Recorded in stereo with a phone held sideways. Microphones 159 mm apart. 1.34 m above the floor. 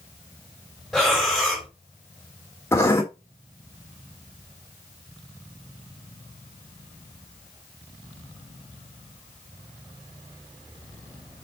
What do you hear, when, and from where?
0.9 s breathing: centre (ahead or behind), 4.5 m
2.7 s writing: 15° left (ahead or behind), 2.5 m